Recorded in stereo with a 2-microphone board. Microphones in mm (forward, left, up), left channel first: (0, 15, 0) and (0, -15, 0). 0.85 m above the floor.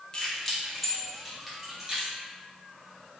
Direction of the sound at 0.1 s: 30° left (ahead or behind).